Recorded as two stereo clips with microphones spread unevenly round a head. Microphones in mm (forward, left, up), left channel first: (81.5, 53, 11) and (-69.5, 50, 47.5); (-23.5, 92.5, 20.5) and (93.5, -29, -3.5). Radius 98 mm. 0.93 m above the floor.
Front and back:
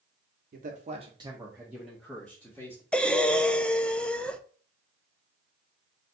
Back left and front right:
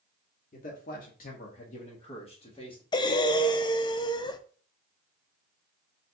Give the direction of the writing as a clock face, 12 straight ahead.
I don't hear writing.